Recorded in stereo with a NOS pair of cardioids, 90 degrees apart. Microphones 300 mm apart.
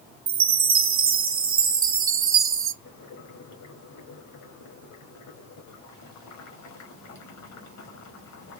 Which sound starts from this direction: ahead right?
A chime, at 0.3 s.